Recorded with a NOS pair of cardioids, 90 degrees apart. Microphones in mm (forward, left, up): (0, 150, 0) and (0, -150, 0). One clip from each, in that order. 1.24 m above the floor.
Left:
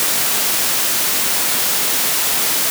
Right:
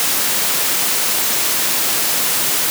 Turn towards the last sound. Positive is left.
No sound to turn to.